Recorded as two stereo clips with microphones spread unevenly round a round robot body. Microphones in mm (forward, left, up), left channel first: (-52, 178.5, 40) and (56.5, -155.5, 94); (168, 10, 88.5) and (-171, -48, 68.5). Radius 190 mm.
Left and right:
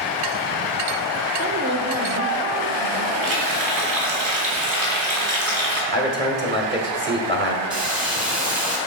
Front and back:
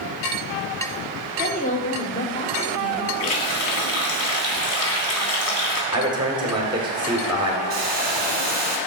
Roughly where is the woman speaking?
Ahead.